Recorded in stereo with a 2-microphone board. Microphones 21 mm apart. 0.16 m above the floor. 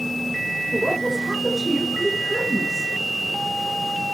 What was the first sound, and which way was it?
A woman speaking, 10° left (ahead or behind).